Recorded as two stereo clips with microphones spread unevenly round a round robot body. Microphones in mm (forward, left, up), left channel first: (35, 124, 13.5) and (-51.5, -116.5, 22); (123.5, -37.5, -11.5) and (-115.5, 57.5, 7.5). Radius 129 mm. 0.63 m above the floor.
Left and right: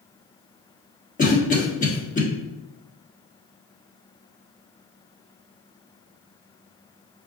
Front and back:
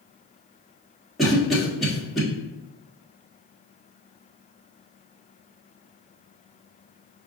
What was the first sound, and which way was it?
A cough, 60° left.